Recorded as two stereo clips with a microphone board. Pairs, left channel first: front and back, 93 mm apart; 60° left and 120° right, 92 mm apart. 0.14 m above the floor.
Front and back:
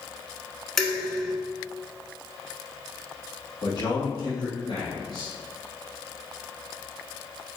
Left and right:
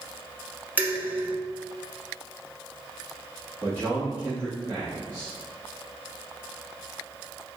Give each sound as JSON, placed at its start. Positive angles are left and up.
{"t": 0.8, "sound": "dishes clattering", "azimuth_deg": -85, "distance_m": 0.9}
{"t": 3.6, "sound": "a man speaking", "azimuth_deg": -5, "distance_m": 2.0}